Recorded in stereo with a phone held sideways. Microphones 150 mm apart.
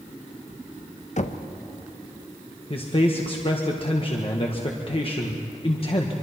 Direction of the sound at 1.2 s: 55° left (ahead or behind).